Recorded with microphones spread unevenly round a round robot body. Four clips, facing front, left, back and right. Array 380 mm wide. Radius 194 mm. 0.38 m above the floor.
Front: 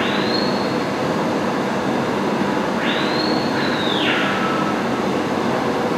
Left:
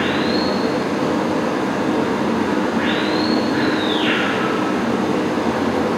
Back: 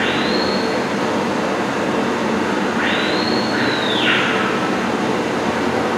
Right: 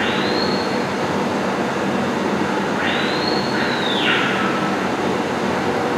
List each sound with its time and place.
0.0 s running water: 140° left, 7.5 m